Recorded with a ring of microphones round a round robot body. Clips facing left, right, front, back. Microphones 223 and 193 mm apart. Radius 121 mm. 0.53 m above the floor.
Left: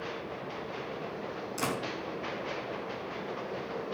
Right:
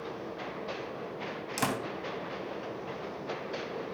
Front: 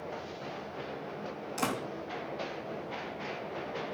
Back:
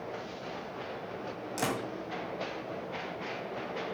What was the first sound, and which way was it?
A door slam, 100° right.